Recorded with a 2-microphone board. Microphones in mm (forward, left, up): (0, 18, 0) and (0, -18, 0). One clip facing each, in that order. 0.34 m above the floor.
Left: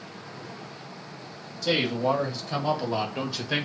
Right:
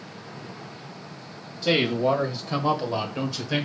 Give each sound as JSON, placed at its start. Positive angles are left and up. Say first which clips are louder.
{"t": 1.6, "sound": "a man speaking", "louder": "right 3 dB", "side_deg": -30, "distance_m": 1.6}